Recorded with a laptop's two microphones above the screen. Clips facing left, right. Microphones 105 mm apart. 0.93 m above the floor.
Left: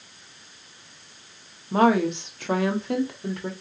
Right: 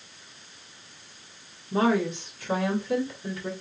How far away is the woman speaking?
About 1.5 m.